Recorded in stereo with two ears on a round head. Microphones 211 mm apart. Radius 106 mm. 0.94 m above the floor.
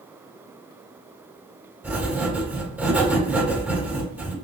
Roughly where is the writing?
Centre.